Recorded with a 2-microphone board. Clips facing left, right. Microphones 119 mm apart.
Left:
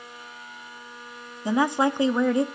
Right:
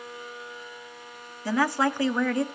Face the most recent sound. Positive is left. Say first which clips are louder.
# left 2 dB
turn(degrees=20)  # may be behind; listen again after turning